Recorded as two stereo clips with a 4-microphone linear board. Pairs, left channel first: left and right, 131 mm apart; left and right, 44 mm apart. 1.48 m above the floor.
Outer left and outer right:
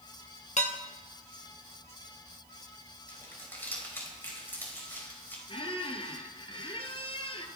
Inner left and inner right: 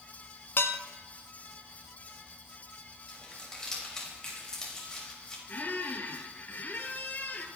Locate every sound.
0.6 s dishes clattering: 65° left (ahead or behind), 1.4 m
3.1 s crumpling: 15° left (ahead or behind), 5.5 m
5.5 s a squeak: 45° left (ahead or behind), 2 m